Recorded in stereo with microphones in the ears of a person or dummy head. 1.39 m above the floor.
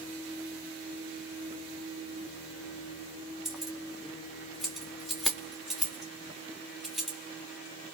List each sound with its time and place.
3.5 s keys jangling: centre (ahead or behind), 0.7 m